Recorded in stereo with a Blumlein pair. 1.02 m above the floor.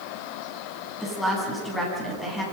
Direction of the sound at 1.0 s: 10° left.